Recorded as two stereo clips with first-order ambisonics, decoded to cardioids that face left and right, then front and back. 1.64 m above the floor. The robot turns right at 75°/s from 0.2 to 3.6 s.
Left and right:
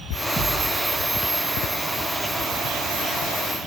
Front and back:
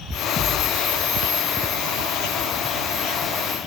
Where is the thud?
40° left, 0.9 m; by 0.8 s 70° left, 0.9 m.